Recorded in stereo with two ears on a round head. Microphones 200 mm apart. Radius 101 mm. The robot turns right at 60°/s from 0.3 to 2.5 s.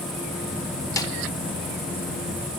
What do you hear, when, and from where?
1.0 s a snare drum: 15° left (ahead or behind), 0.9 m; by 1.1 s 25° left (ahead or behind), 0.9 m